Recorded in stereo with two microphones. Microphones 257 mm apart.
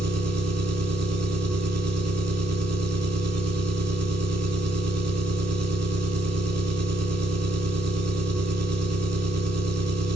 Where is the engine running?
80° right, 2.5 m.